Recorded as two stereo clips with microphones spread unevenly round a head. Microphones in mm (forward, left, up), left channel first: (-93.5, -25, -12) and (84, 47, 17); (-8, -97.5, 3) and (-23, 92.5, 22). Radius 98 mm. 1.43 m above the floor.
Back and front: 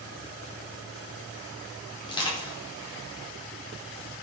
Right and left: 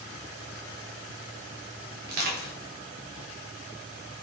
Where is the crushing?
135° left, 5 m.